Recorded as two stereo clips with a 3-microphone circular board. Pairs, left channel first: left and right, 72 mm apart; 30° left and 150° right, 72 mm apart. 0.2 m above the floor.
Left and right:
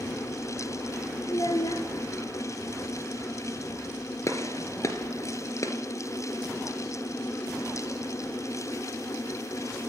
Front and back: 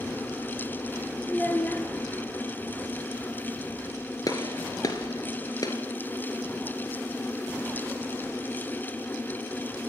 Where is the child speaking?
95° left, 2 m.